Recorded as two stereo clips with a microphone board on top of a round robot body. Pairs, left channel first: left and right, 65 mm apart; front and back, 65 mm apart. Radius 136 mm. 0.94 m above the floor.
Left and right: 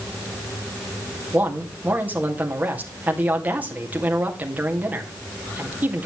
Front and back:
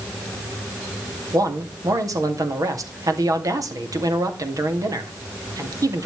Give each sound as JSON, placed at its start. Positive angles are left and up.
{"t": 1.3, "sound": "a man speaking", "azimuth_deg": -155, "distance_m": 2.5}